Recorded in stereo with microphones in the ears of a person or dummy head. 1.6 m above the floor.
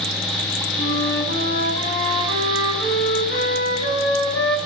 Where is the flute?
60° left (ahead or behind), 6 m.